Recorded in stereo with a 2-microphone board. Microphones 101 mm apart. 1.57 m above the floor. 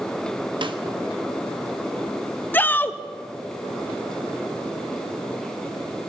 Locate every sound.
0.6 s a snare drum: 50° right (ahead or behind), 1.4 m
2.5 s a shout: 20° left (ahead or behind), 1.0 m